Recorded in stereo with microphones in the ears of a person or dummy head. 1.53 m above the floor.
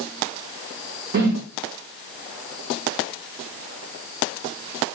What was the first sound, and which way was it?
A whoosh, 55° right (ahead or behind).